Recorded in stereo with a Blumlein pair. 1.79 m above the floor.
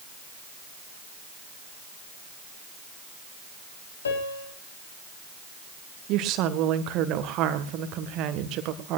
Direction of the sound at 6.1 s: 35° right.